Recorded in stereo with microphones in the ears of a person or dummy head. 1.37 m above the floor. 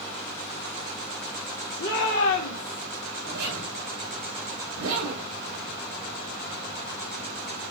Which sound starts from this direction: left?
A shout, at 1.8 s.